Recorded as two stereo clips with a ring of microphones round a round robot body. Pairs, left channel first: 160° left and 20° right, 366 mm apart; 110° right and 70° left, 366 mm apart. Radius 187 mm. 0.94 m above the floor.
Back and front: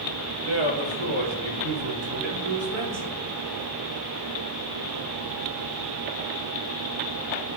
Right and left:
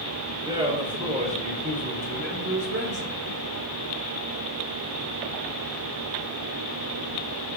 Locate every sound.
0.5 s a man speaking: 10° right, 4 m; by 3.2 s 15° left, 4 m